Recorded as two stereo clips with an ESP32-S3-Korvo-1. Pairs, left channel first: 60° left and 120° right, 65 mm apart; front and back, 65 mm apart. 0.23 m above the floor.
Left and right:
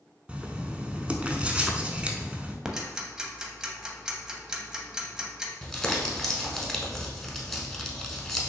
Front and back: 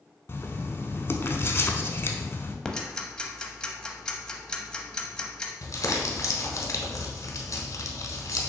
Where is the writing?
50° right, 0.6 m.